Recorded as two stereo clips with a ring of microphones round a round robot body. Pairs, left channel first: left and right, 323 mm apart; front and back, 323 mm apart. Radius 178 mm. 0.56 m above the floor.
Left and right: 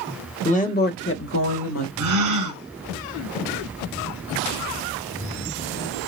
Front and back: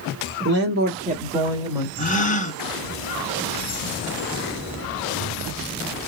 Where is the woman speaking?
150° left, 1.3 m; by 1.9 s 100° left, 1.5 m.